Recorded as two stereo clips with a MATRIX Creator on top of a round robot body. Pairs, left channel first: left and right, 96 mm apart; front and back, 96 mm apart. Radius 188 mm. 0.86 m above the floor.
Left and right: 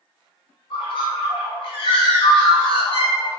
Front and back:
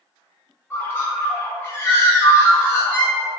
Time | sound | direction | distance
0.7 | a bird | 65° left | 0.9 m